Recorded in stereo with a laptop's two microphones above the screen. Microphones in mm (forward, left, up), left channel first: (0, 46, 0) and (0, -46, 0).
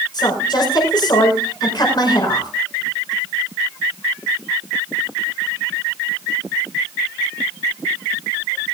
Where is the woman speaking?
55° left (ahead or behind), 5 m.